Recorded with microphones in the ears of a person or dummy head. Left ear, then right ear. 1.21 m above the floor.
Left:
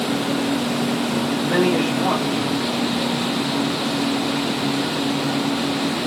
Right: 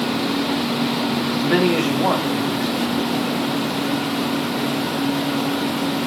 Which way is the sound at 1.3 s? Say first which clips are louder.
Right 1 dB; 70° right (ahead or behind).